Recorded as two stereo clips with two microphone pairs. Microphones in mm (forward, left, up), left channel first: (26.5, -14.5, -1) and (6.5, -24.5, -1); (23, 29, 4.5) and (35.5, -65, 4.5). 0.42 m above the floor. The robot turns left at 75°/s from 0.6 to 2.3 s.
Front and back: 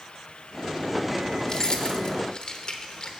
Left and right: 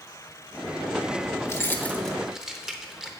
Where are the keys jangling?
60° left, 0.9 m; by 3.1 s 5° right, 0.9 m.